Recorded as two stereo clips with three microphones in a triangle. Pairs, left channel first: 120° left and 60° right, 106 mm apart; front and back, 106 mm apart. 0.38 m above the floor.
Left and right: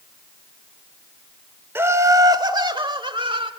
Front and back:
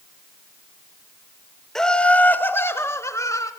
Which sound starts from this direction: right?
Laughter, at 1.8 s.